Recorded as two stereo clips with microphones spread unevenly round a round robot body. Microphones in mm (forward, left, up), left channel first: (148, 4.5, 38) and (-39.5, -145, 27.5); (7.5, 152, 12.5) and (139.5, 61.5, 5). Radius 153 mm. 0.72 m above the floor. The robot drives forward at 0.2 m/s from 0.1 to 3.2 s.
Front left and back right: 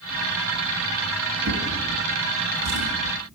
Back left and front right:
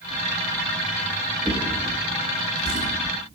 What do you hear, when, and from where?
1.4 s a drawer: 140° right, 1.5 m; by 2.9 s 145° right, 1.7 m